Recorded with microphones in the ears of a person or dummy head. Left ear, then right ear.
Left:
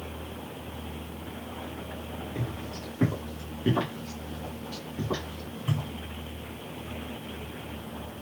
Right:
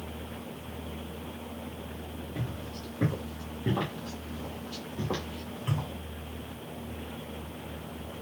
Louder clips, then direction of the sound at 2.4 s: Left 3 dB; 35° left (ahead or behind).